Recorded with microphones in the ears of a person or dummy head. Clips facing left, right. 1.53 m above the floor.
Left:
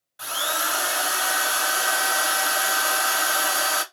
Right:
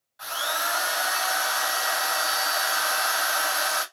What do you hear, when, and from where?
0.2 s a drill: 40° left (ahead or behind), 1.1 m